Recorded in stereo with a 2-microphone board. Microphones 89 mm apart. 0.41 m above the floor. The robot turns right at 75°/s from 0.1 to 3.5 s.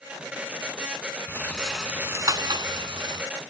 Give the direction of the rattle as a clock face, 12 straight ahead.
7 o'clock.